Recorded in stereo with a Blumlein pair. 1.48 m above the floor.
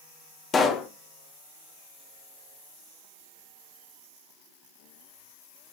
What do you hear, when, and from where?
0.5 s a pop: 20° left, 1.0 m